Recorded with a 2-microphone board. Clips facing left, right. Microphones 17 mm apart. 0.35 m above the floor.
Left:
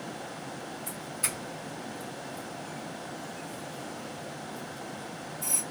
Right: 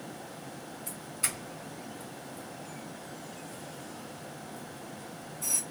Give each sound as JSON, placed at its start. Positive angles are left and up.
{"t": 0.9, "sound": "a doorbell", "side_deg": -5, "distance_m": 2.5}